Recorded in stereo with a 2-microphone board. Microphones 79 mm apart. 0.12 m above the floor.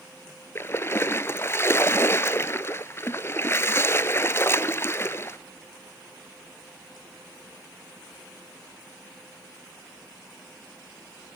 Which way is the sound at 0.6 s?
30° left (ahead or behind).